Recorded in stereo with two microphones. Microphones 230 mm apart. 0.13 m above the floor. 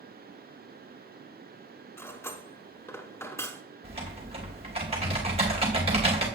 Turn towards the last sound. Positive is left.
turn(degrees=-25)  # may be behind; listen again after turning